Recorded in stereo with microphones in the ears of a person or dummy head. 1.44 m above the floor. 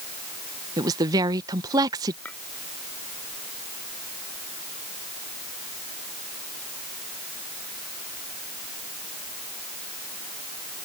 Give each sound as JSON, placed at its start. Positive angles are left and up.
{"t": 0.8, "sound": "a woman speaking", "side_deg": -20}
{"t": 2.2, "sound": "a clink", "side_deg": 10}